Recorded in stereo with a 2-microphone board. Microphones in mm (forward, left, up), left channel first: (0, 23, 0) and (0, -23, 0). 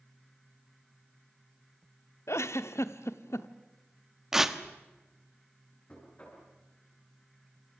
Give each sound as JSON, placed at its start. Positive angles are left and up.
{"t": 2.3, "sound": "a giggle", "side_deg": 85, "distance_m": 1.0}
{"t": 4.3, "sound": "tearing paper", "side_deg": -10, "distance_m": 1.3}
{"t": 5.9, "sound": "knocking", "side_deg": 30, "distance_m": 8.0}